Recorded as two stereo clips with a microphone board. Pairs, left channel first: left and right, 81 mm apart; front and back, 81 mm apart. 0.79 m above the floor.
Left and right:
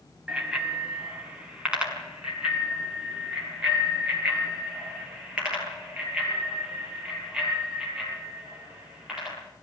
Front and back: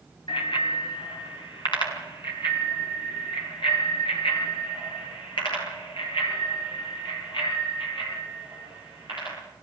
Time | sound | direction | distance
0.3 | a bicycle bell | 10° right | 3.5 m